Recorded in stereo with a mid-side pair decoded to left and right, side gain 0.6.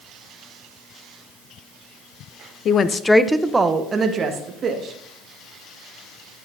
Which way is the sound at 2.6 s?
50° left.